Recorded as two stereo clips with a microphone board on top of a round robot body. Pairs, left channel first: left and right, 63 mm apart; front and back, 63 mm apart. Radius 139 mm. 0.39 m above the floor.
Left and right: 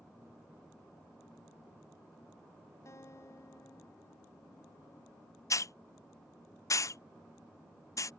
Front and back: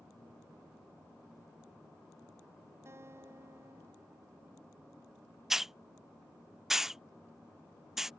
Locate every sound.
2.9 s a guitar: 130° left
5.5 s a hiss: 95° left